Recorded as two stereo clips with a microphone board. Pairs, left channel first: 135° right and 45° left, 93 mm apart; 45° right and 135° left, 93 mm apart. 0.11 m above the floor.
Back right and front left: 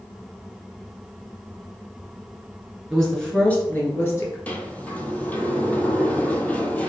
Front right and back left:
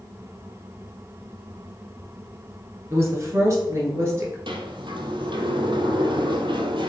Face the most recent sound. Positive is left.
turn(degrees=155)